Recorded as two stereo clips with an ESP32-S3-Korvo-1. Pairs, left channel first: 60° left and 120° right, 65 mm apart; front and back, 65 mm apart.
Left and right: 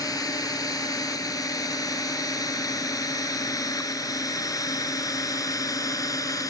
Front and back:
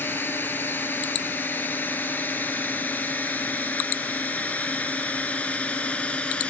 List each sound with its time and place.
0.0 s a drone: 55° left; by 6.5 s 70° left